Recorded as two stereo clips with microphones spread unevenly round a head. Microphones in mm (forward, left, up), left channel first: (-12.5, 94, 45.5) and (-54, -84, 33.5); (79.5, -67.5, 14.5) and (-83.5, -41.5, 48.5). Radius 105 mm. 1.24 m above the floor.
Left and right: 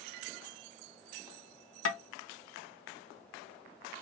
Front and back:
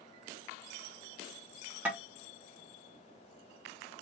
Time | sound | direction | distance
1.9 | tapping | 90° left | 0.9 m